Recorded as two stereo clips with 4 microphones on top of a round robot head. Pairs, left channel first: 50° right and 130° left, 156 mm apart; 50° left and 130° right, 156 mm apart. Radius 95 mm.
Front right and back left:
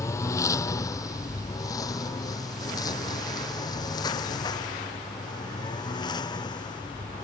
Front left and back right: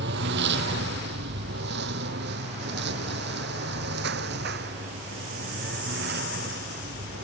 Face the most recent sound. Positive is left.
turn(degrees=-115)